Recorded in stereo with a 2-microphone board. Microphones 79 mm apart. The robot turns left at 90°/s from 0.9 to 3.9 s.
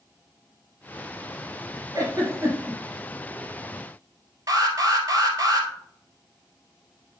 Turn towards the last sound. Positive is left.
turn(degrees=-45)  # may be behind; listen again after turning